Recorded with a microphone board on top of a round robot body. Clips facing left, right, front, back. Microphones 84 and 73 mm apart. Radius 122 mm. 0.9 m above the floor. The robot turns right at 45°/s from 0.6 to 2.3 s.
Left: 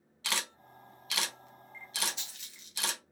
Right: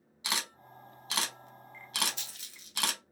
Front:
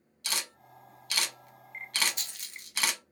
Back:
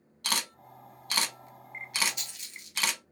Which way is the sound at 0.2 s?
160° right.